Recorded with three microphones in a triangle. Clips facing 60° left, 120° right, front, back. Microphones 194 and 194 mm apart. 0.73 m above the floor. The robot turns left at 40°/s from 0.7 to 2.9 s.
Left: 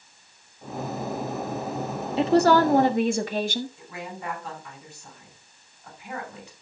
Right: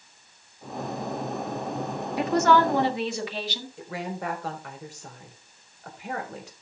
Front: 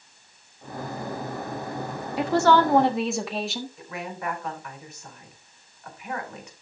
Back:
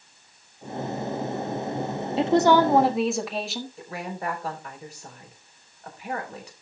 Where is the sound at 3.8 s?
125° right, 3.5 m.